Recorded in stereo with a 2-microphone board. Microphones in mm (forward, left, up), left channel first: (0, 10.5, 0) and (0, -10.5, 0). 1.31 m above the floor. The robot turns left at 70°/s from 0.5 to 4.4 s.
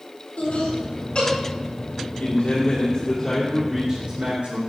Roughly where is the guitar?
No guitar in this recording.